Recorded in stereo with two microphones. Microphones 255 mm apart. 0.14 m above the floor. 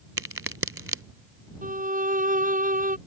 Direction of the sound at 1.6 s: 30° right (ahead or behind).